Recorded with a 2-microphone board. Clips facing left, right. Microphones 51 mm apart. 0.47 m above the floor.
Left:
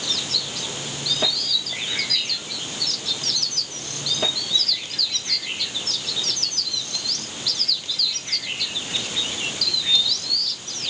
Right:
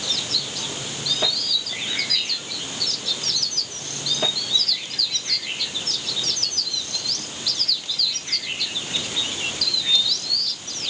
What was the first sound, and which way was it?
Only background noise.